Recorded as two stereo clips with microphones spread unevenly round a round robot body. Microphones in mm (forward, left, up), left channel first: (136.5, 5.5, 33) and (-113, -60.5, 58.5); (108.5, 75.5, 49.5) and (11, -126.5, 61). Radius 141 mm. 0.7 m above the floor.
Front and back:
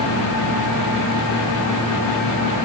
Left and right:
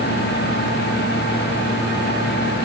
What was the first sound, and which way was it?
Only background noise.